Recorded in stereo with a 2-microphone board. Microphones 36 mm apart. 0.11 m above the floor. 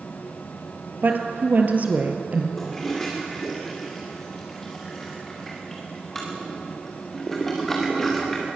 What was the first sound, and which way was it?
A woman speaking, 55° right (ahead or behind).